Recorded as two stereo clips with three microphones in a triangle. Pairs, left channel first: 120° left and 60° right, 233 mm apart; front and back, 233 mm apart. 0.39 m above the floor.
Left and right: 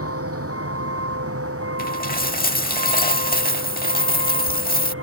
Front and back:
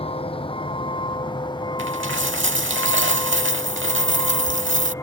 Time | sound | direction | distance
0.0 | a vehicle | 65° right | ?
1.8 | a dropped coin | 160° left | ?